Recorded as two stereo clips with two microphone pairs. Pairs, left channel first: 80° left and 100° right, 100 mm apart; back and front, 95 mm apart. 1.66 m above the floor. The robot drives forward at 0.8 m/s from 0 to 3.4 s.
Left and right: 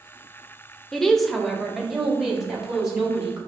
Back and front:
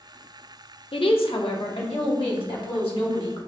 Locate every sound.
0.9 s a woman speaking: 170° left, 0.6 m; by 3.4 s 175° left, 2.5 m